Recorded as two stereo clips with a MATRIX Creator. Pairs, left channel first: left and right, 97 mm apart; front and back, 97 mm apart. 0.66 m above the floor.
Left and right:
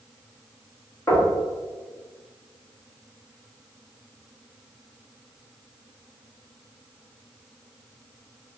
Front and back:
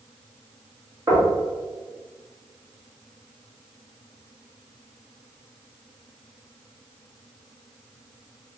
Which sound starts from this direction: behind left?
Knocking, at 1.1 s.